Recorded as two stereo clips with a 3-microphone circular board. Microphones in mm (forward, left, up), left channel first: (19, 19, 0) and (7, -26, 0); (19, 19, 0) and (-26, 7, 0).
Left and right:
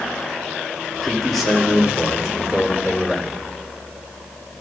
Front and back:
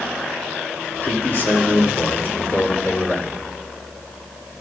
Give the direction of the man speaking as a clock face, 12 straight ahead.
1 o'clock.